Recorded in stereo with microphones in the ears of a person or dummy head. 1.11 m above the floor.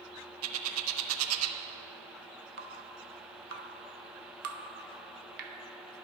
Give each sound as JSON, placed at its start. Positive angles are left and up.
{"t": 0.4, "sound": "a bird", "side_deg": -80, "distance_m": 0.6}
{"t": 2.6, "sound": "dripping", "side_deg": -50, "distance_m": 0.8}